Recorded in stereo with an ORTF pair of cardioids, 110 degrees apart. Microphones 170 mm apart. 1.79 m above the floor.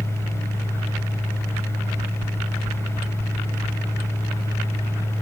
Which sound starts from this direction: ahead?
A fan, at 0.0 s.